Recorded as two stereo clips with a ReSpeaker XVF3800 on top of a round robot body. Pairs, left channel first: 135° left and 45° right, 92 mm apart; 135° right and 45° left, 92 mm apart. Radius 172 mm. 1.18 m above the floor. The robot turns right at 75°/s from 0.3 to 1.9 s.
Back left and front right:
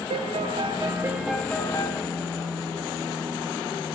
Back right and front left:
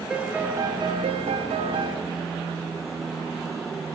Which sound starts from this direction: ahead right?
A piano, at 0.1 s.